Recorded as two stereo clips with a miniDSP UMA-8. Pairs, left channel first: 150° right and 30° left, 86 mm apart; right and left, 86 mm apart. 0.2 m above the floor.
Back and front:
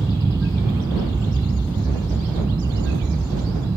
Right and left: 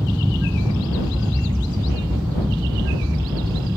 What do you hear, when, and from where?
0.0 s an aircraft: 15° left; by 3.8 s 40° left